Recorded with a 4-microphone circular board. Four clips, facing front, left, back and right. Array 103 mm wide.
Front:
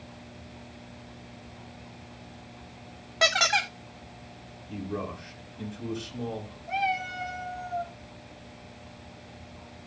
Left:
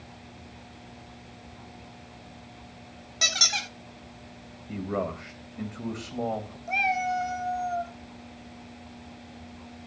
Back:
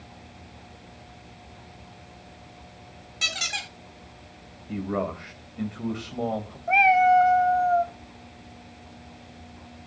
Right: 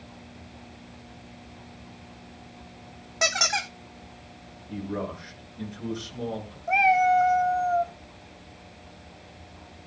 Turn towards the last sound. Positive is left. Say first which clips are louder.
# right 7 dB, back 12 dB
turn(degrees=-150)